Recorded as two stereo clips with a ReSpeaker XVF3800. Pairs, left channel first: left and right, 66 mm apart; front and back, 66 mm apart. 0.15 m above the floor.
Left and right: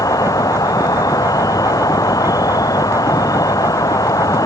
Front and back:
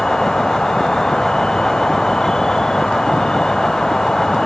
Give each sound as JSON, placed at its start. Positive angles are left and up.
{"t": 0.0, "sound": "an insect", "azimuth_deg": 80}